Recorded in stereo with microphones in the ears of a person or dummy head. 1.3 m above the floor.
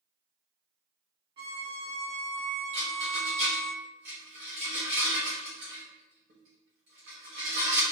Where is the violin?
30° right (ahead or behind), 1.1 m.